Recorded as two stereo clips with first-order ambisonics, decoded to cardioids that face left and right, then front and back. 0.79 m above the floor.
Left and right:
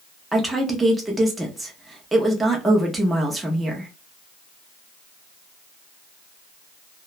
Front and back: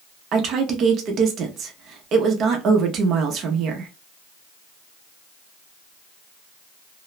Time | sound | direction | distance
0.3 | a woman speaking | 170° right | 0.5 m